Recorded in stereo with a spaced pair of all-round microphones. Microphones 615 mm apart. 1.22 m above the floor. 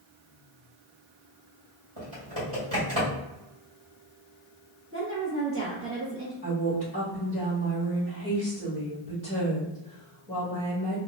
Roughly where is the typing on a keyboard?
Right.